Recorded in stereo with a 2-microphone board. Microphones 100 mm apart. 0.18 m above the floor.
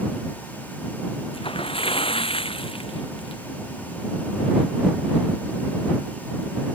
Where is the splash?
65° left (ahead or behind).